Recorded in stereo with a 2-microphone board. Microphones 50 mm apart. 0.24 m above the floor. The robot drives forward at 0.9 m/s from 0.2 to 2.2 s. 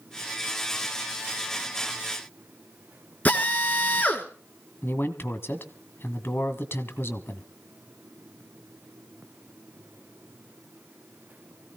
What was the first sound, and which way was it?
A drill, 30° left (ahead or behind).